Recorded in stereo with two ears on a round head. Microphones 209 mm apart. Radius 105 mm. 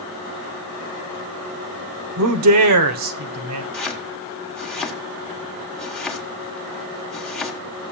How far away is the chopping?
About 1.4 m.